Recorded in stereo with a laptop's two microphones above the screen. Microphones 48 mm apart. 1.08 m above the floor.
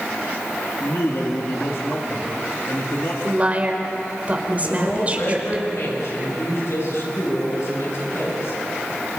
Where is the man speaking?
65° left (ahead or behind), 2.5 m.